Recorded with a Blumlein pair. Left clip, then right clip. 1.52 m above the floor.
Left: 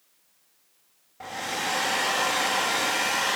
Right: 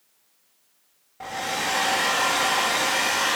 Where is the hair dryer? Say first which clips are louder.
Right 3 dB; 5° right, 3 m.